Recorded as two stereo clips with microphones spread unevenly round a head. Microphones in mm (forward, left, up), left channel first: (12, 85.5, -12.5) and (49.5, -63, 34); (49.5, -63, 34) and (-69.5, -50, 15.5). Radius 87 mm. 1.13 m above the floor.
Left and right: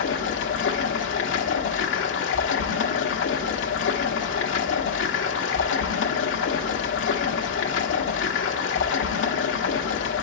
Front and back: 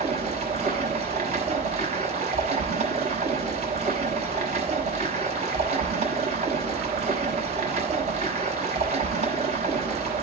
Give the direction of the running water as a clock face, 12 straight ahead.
8 o'clock.